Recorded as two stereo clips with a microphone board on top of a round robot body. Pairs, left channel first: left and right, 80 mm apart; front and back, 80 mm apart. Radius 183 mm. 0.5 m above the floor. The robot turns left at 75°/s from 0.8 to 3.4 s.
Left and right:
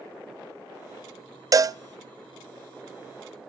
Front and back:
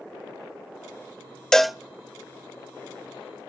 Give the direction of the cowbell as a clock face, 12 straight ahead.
3 o'clock.